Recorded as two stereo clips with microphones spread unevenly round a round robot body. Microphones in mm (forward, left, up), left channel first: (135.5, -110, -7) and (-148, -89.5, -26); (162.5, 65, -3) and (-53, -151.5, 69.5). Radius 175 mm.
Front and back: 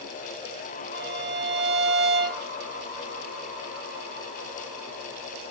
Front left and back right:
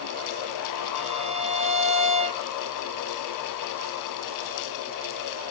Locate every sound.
0.9 s a violin: 145° left, 0.7 m